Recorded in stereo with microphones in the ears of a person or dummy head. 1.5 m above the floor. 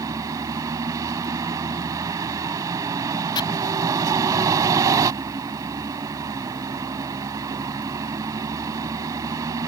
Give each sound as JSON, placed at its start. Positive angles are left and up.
{"t": 0.0, "sound": "a vehicle", "side_deg": -20}
{"t": 3.4, "sound": "chopping", "side_deg": 25}